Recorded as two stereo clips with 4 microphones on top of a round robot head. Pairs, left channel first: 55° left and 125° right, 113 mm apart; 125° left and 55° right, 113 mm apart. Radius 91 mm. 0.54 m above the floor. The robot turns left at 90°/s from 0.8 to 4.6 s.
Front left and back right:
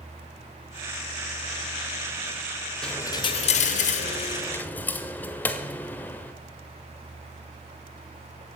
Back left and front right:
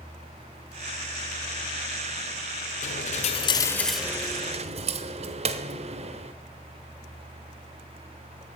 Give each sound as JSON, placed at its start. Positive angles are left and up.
{"t": 2.8, "sound": "a dropped coin", "azimuth_deg": 135, "distance_m": 0.9}